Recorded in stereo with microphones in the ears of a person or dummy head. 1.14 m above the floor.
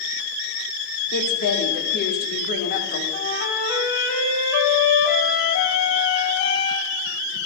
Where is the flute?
60° left (ahead or behind), 2 m.